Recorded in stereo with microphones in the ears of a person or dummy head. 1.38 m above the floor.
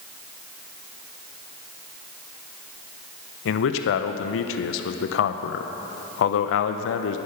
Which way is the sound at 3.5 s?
75° left (ahead or behind).